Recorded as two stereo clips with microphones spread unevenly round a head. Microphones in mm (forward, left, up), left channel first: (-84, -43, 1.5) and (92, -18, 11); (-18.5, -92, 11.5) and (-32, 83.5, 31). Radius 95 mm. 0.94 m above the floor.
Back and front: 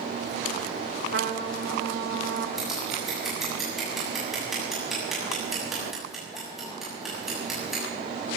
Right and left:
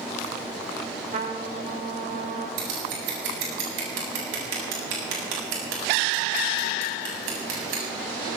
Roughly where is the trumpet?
Ahead left.